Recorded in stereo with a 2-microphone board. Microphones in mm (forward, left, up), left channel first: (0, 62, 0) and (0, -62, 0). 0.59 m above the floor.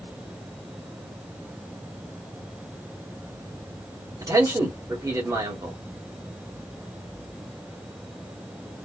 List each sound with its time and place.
4.2 s a man speaking: 30° right (ahead or behind), 1.3 m